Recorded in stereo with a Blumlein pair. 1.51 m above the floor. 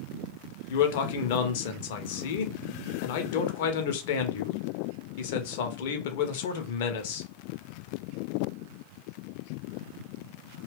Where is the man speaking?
50° left, 0.7 m.